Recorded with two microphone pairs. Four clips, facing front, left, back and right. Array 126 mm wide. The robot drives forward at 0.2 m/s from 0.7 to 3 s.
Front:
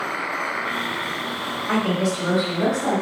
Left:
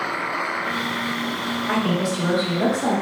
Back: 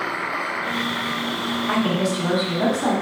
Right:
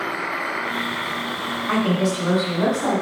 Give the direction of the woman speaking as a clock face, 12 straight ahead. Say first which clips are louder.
Right 2 dB, front 1 dB; 7 o'clock.